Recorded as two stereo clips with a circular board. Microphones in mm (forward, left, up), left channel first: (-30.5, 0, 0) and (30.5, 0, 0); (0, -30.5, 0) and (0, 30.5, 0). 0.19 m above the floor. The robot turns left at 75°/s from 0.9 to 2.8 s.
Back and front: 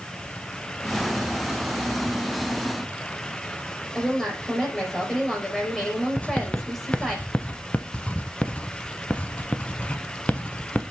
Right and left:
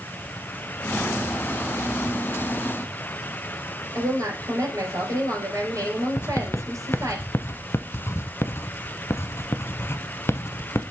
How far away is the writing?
About 0.7 m.